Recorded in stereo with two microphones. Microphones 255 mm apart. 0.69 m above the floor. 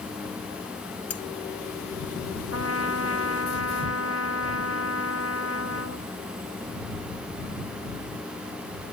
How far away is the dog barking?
I don't hear a dog barking.